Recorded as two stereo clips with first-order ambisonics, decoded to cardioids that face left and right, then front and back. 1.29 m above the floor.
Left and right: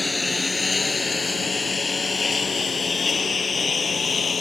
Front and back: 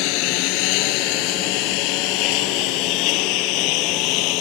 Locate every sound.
0.0 s a lawn mower: 10° left; by 4.4 s 20° left